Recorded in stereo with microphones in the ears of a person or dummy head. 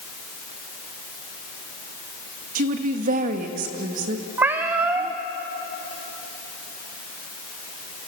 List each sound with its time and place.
2.5 s a woman speaking: 45° right (ahead or behind), 1.9 m
4.4 s a cat meowing: 10° right (ahead or behind), 0.8 m